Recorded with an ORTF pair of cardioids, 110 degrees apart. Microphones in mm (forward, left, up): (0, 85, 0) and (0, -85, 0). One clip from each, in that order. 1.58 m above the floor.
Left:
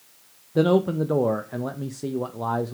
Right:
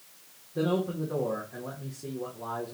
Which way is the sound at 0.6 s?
55° left.